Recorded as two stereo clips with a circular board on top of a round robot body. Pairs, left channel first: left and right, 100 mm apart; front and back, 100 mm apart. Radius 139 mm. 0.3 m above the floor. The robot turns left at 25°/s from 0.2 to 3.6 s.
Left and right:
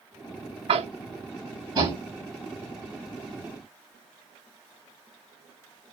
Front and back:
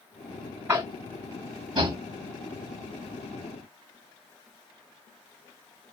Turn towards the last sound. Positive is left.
turn(degrees=175)